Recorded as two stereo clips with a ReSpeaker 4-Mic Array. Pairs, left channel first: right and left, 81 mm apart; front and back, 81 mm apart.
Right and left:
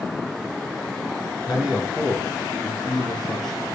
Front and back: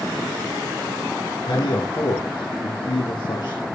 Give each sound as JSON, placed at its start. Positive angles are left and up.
{"t": 1.5, "sound": "a man speaking", "azimuth_deg": 20, "distance_m": 3.0}